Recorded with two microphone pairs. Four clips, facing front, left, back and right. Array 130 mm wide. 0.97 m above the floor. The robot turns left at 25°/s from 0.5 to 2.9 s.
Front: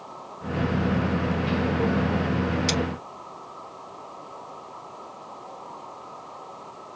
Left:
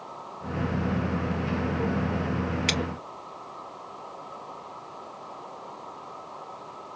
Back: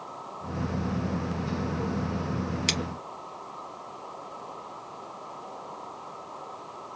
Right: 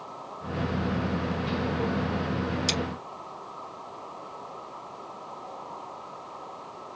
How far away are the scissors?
About 3 m.